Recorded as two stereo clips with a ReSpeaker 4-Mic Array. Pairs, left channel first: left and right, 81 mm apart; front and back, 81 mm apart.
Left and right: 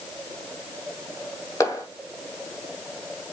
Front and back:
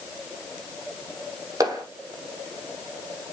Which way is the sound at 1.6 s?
135° left.